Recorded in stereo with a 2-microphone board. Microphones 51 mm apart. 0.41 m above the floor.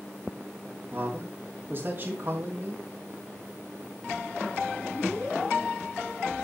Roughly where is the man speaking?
Right.